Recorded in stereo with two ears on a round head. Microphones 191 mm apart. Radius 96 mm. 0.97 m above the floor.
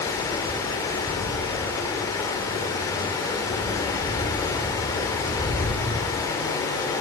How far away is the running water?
About 1.8 m.